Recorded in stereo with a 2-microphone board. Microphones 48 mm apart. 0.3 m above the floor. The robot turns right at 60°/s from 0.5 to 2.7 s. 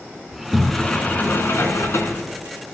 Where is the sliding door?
Straight ahead, 2 m; by 2.2 s 105° left, 2 m.